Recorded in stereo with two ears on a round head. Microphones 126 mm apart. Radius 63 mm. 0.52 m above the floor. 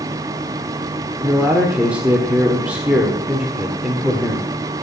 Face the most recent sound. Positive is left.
turn(degrees=-10)  # may be behind; listen again after turning